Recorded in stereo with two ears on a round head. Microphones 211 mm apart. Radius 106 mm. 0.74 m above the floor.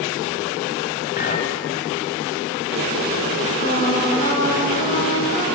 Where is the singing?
25° left (ahead or behind), 7.5 m.